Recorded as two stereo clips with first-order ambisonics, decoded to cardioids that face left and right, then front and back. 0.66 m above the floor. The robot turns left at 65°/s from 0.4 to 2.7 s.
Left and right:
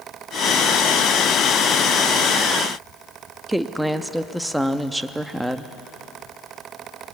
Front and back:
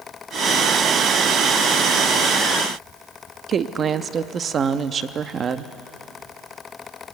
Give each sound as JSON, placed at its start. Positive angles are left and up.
{"t": 3.5, "sound": "a woman speaking", "azimuth_deg": -170, "distance_m": 0.5}